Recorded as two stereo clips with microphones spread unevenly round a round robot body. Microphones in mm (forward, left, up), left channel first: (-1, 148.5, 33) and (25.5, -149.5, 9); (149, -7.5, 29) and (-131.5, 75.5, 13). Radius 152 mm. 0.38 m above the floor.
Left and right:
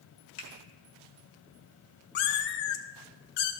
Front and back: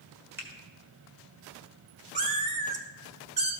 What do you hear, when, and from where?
0.4 s a finger snap: 90° left, 1.6 m
2.1 s a cat meowing: 95° left, 0.8 m